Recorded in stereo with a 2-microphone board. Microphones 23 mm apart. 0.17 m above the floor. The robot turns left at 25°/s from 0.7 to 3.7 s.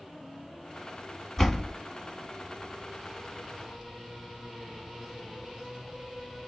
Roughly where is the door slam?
Centre.